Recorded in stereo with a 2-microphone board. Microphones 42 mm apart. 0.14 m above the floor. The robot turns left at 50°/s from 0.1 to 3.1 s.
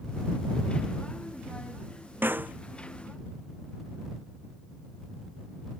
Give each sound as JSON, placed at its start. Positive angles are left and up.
{"t": 2.2, "sound": "a snare drum", "side_deg": -60}